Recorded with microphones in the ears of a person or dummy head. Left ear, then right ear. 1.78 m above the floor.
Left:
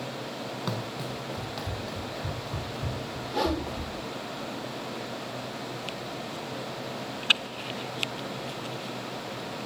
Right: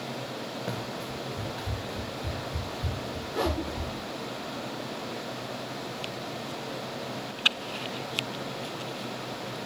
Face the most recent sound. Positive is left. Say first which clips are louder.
# left 2 dB
turn(degrees=30)  # may be behind; listen again after turning